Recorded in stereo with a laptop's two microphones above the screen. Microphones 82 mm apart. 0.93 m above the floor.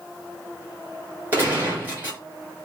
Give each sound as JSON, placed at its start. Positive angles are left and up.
{"t": 1.3, "sound": "a gunshot", "side_deg": -25, "distance_m": 1.8}